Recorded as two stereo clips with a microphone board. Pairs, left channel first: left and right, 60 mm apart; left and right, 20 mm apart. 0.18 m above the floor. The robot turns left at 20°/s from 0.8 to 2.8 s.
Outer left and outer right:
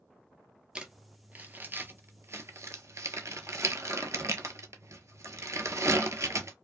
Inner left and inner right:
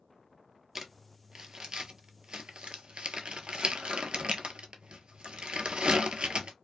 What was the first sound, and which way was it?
Crumpling, 15° right (ahead or behind).